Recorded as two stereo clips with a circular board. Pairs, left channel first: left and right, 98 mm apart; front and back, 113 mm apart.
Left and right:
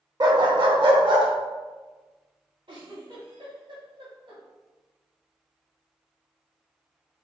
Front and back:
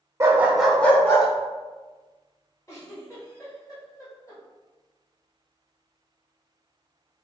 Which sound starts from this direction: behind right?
A dog barking, at 0.2 s.